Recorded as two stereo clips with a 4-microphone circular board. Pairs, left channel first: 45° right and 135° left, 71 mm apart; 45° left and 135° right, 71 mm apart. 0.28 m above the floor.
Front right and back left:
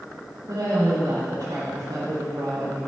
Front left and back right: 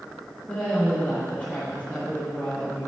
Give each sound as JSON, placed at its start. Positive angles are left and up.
{"t": 0.5, "sound": "a woman speaking", "azimuth_deg": 125, "distance_m": 4.5}